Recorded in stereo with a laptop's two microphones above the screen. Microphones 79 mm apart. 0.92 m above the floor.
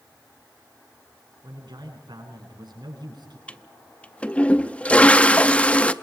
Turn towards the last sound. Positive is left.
turn(degrees=15)  # may be behind; listen again after turning